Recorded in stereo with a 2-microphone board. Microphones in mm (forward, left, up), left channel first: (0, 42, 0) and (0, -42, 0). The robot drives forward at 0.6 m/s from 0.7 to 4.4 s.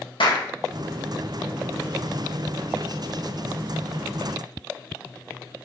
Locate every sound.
0.2 s a clap: 70° left (ahead or behind), 2 m